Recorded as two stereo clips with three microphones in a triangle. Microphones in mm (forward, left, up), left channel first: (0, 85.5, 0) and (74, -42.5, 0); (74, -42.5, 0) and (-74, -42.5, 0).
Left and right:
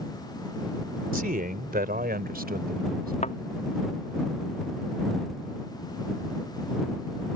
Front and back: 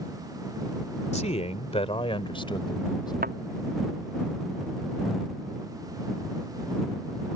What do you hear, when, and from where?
1.1 s a man speaking: 40° right; by 3.1 s 60° right
3.2 s a thud: 165° left